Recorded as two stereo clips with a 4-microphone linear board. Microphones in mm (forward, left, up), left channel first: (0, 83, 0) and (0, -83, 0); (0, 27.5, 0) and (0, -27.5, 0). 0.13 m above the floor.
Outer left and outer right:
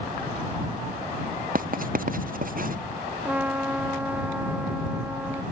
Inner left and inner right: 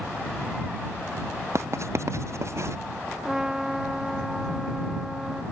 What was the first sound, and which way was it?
Writing, 55° right (ahead or behind).